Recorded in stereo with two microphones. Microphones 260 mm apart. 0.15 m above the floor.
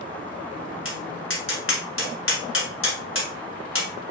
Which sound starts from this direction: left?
Tapping, at 0.8 s.